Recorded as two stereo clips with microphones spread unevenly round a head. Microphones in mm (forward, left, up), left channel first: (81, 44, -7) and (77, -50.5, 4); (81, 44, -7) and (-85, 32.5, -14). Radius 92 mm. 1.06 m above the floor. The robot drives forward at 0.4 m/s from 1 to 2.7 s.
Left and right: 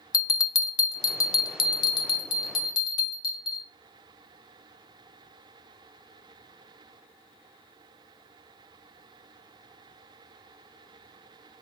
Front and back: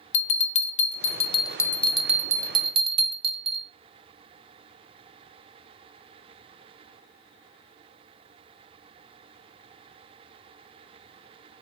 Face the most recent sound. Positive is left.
turn(degrees=130)